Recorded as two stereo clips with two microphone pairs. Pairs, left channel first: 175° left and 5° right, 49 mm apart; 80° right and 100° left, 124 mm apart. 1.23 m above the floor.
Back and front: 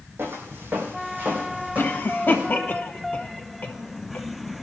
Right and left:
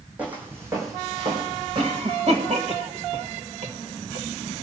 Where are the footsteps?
20° left, 3 m; by 2.5 s 60° left, 4 m.